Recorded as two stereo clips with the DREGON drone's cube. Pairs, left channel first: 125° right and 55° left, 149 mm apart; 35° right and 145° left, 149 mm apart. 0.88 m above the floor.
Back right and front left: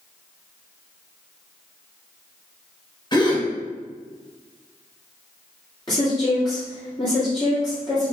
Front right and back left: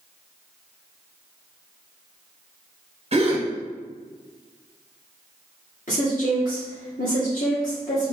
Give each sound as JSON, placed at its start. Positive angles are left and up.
{"t": 3.1, "sound": "a gasp", "azimuth_deg": 180, "distance_m": 1.1}
{"t": 5.9, "sound": "a woman speaking", "azimuth_deg": -65, "distance_m": 1.7}